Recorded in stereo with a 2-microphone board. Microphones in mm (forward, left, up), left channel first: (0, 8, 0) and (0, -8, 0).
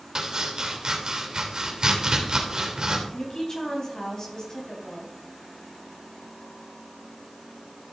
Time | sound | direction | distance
0.1 | chopping | 45° right (ahead or behind) | 2.5 m
3.1 | a woman speaking | 40° left (ahead or behind) | 4 m